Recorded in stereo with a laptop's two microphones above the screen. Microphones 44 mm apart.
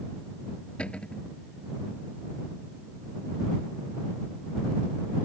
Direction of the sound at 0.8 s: 25° left (ahead or behind).